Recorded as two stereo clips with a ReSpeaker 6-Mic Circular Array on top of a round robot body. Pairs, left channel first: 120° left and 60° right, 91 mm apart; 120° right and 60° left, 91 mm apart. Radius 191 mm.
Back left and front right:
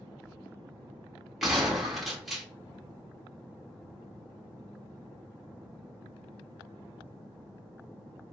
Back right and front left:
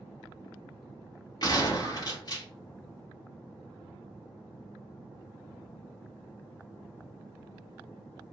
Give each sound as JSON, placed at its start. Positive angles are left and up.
{"t": 1.4, "sound": "a gunshot", "azimuth_deg": -150, "distance_m": 2.5}